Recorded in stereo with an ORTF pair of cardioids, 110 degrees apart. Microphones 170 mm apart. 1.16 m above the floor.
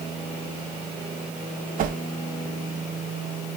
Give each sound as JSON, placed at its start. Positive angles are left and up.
{"t": 1.8, "sound": "a whoosh", "azimuth_deg": -55, "distance_m": 0.8}